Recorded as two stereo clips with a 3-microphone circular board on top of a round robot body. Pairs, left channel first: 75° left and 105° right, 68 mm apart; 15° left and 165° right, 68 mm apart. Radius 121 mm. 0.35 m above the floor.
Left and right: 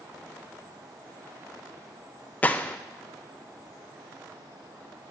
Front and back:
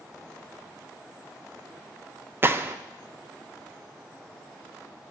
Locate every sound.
2.4 s a gunshot: 140° left, 0.6 m